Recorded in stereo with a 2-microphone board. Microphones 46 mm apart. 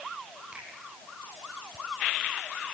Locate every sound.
0.5 s a finger snap: 25° right (ahead or behind), 5.5 m